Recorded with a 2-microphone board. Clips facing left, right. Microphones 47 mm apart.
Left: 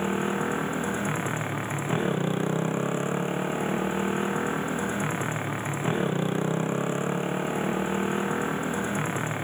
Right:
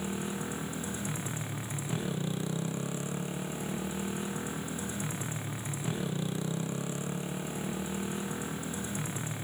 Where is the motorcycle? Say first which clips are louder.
Left 9 dB; 40° left (ahead or behind).